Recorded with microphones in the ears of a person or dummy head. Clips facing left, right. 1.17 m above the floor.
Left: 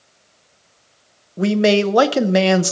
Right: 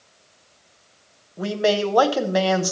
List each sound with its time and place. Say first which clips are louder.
1.4 s a man speaking: left 6 dB; 30° left (ahead or behind), 0.6 m